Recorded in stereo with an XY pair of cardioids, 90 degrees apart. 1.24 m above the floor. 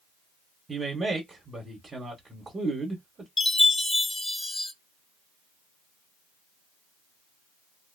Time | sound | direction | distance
0.7 | a man speaking | 35° right | 1.3 m
3.4 | a chime | 30° left | 0.9 m